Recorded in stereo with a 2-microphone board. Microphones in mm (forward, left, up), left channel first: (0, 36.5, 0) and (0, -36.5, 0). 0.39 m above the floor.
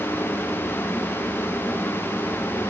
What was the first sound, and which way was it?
Only background noise.